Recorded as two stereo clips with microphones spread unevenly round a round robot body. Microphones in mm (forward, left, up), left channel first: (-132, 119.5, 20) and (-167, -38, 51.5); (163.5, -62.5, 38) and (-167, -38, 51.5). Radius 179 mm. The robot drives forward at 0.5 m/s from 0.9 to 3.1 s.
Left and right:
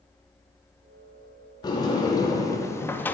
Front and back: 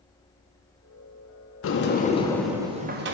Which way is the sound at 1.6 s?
30° left.